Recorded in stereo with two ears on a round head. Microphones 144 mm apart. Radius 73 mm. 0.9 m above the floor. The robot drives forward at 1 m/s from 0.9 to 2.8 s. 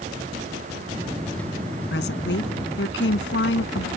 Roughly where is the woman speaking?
Left.